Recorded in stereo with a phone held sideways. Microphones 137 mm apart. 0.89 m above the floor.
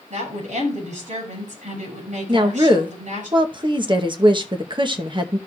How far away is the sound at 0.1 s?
About 6.5 m.